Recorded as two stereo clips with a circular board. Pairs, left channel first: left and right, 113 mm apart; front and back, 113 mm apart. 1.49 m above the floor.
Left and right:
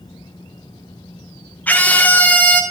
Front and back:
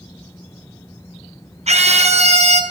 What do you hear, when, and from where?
1.7 s a scream: 165° left, 1.6 m